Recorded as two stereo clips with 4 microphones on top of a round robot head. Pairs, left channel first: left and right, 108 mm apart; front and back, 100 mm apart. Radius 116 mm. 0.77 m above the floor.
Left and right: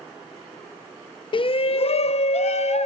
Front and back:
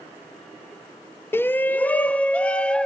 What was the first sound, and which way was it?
A shout, 65° left.